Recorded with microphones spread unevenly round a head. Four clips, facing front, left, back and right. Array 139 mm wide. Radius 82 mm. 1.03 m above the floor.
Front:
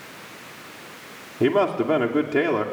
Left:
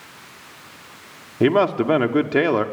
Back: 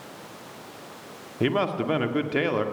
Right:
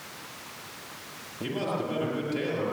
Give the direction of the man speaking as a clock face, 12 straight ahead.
10 o'clock.